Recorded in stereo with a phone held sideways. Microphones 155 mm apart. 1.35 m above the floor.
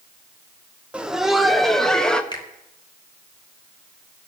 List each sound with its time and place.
0.9 s laughter: 5° right (ahead or behind), 0.9 m; by 2.2 s 5° left (ahead or behind), 1.6 m
2.3 s a finger snap: 30° left (ahead or behind), 2 m